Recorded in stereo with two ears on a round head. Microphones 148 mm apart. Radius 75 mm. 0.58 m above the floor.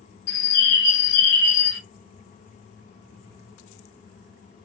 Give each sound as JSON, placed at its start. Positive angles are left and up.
{"t": 0.3, "sound": "a bird", "side_deg": 70, "distance_m": 2.5}